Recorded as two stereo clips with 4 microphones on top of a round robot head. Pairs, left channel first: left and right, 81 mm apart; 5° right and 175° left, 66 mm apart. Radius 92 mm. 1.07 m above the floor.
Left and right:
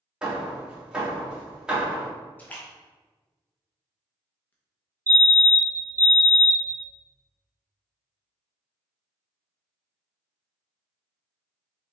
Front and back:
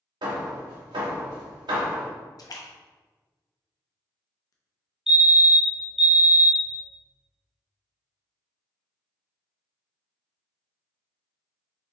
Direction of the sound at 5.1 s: 110° right.